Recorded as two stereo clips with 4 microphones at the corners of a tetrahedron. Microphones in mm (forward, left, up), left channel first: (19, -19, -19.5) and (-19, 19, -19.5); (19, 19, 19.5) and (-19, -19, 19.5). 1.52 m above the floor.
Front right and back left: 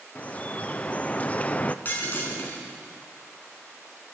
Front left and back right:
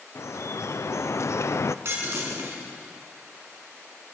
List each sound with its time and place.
0.1 s dripping: 15° left, 0.5 m
1.9 s breaking glass: 95° right, 4.5 m